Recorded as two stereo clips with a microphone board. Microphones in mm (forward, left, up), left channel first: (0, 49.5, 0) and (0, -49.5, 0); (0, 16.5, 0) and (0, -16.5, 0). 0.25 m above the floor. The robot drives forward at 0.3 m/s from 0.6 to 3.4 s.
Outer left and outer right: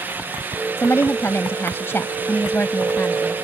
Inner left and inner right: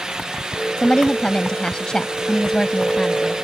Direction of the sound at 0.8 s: 25° left (ahead or behind).